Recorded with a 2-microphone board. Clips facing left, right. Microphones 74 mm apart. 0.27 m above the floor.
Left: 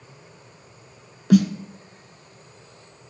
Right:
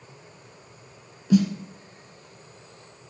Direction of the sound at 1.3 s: 70° left (ahead or behind).